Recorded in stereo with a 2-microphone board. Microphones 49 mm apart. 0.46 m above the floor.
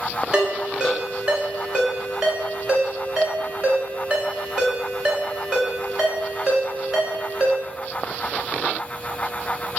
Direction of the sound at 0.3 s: 20° right (ahead or behind).